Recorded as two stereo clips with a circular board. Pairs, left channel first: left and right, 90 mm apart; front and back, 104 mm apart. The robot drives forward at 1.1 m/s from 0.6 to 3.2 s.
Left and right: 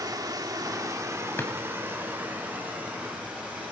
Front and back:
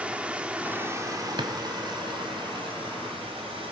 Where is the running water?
105° right, 1.1 m; by 3.7 s 165° right, 3.5 m.